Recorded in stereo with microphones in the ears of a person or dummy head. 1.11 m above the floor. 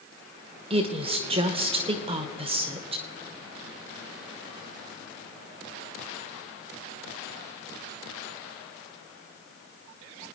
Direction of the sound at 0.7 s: 20° right (ahead or behind).